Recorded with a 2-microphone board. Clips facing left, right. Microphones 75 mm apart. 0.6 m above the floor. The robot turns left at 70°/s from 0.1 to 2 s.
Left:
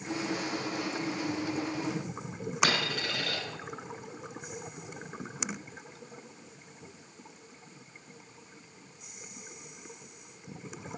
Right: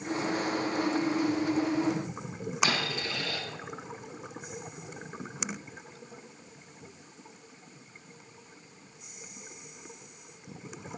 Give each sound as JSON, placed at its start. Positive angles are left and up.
{"t": 2.6, "sound": "a dropped coin", "side_deg": 70, "distance_m": 1.1}